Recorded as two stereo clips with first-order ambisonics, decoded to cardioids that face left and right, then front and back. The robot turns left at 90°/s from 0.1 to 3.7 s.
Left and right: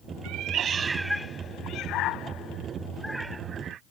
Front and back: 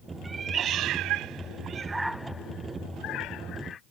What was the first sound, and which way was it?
A cat meowing, 100° right.